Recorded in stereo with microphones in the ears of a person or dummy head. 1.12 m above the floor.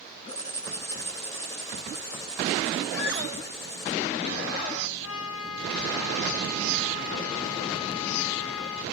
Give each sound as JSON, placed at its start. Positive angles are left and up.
{"t": 0.3, "sound": "writing", "side_deg": 20, "distance_m": 1.4}
{"t": 2.9, "sound": "a squeak", "side_deg": 80, "distance_m": 3.5}
{"t": 5.0, "sound": "a trumpet", "side_deg": 75, "distance_m": 2.5}